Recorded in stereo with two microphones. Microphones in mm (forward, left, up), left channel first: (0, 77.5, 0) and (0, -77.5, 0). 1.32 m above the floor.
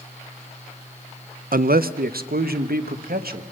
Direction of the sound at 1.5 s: 65° right (ahead or behind).